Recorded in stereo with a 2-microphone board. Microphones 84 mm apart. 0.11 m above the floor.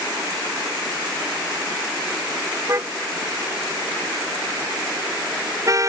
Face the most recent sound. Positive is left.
turn(degrees=-40)  # may be behind; listen again after turning